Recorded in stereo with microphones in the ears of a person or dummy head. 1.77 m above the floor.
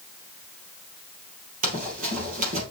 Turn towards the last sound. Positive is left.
turn(degrees=-40)  # may be behind; listen again after turning